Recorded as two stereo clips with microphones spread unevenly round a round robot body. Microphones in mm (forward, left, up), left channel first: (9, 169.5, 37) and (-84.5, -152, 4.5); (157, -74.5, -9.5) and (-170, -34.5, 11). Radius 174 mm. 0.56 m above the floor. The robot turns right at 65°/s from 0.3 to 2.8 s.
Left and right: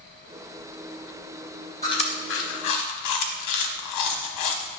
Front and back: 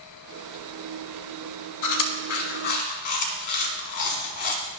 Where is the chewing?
10° right, 0.9 m; by 4.8 s 55° left, 0.9 m.